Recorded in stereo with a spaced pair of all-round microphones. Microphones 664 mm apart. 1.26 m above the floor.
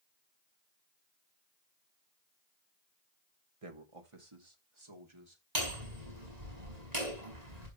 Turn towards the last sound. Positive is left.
turn(degrees=-80)